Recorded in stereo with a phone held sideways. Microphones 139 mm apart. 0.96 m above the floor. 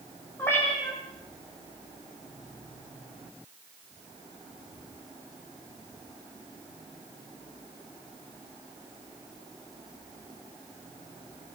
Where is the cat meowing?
15° left (ahead or behind), 7.5 m.